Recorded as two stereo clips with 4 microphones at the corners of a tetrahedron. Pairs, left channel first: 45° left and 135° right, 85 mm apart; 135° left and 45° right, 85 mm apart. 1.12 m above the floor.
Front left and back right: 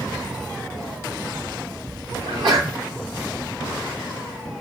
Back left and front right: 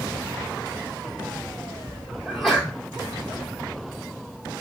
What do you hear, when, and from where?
2.2 s a sneeze: 140° right, 2 m